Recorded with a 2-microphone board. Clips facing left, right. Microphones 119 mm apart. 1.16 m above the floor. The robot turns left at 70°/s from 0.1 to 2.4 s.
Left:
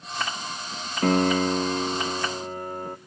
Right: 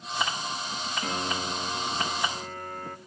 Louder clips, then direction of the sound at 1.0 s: Left 14 dB; 120° left.